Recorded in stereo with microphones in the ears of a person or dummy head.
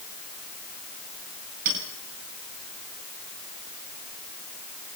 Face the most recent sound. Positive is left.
turn(degrees=-45)  # may be behind; listen again after turning